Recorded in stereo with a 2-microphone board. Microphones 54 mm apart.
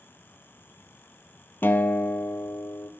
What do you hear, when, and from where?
1.6 s a guitar: 45° left (ahead or behind), 0.7 m